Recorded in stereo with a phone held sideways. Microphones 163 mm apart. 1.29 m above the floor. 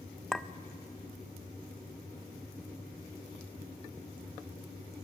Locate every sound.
0.3 s a clink: 5° left (ahead or behind), 0.5 m